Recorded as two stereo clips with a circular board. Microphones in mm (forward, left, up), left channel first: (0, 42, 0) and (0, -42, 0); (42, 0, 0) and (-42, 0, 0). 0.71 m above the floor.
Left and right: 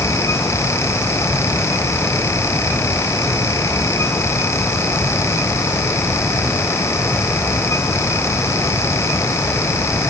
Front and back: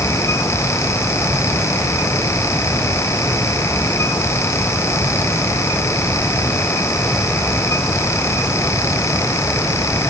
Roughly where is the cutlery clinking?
I don't hear cutlery clinking.